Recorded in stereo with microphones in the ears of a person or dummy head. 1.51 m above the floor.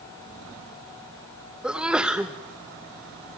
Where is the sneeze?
5° right (ahead or behind), 0.6 m.